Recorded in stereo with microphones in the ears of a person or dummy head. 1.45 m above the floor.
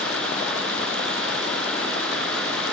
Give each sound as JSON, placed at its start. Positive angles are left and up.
{"t": 0.0, "sound": "running water", "side_deg": 5, "distance_m": 4.5}